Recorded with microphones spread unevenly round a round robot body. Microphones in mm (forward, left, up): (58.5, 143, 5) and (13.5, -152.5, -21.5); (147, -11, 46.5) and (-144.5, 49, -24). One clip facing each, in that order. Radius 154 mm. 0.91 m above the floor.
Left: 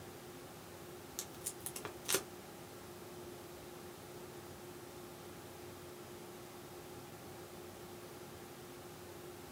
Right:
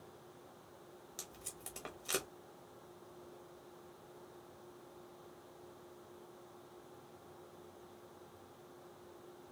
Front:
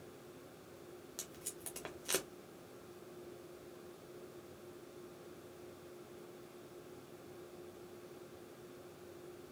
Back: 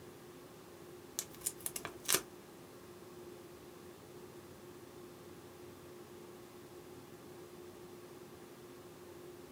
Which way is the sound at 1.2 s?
160° left.